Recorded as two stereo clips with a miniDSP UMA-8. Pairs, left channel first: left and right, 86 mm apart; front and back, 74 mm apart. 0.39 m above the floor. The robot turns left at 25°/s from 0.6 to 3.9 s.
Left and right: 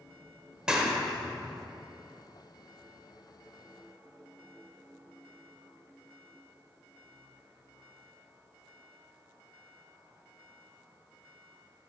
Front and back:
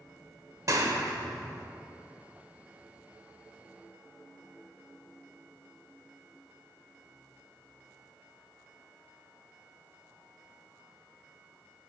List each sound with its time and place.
0.7 s a clap: 170° right, 0.8 m; by 1.7 s 165° left, 0.8 m